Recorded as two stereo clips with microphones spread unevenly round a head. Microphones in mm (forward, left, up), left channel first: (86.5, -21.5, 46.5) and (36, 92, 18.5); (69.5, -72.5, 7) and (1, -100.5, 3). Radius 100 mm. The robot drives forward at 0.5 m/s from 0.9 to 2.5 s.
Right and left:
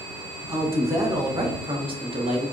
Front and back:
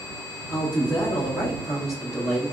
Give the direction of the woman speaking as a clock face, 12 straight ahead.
10 o'clock.